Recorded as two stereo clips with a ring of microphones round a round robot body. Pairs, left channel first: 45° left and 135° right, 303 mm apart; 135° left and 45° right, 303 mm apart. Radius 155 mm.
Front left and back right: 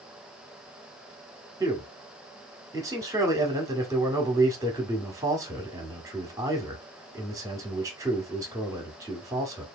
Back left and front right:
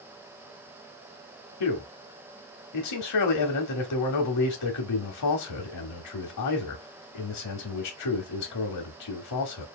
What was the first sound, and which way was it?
A man speaking, 145° left.